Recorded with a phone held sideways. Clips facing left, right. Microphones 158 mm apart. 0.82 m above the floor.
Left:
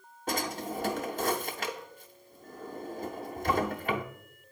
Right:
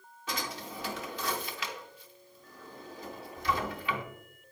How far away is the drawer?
About 0.6 m.